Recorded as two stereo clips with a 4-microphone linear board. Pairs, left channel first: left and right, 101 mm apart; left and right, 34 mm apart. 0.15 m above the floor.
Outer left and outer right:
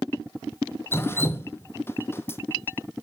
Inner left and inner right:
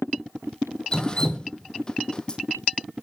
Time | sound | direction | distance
0.9 | dripping | 25° left (ahead or behind) | 1.0 m